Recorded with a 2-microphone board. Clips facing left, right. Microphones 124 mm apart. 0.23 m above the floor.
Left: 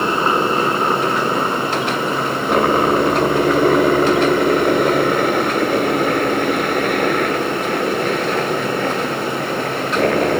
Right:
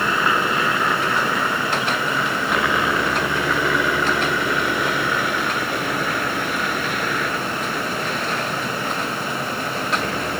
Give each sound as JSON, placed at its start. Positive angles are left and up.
{"t": 0.0, "sound": "a helicopter", "side_deg": 35}